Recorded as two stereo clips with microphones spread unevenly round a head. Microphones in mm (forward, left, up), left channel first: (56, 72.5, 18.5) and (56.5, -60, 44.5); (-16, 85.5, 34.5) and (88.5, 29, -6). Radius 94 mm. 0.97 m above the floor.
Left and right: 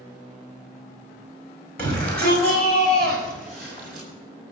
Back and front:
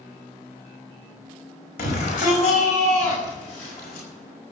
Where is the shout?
170° left, 5.5 m; by 4.1 s 175° right, 7.5 m.